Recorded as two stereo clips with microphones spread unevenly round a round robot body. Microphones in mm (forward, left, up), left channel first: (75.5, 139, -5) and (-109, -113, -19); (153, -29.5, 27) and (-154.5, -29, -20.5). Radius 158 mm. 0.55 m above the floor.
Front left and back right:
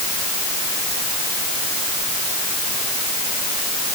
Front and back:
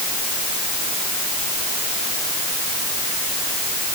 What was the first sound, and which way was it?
Only background noise.